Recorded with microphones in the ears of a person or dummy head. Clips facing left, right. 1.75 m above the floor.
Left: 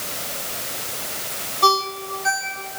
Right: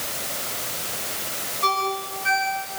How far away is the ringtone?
About 7.5 m.